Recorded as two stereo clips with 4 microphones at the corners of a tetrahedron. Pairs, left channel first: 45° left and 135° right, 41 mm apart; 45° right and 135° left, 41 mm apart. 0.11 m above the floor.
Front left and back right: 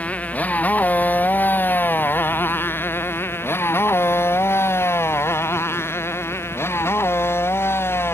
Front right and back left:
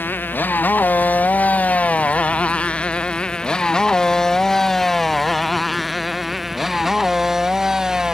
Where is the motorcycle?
10° right; by 8.2 s 60° left.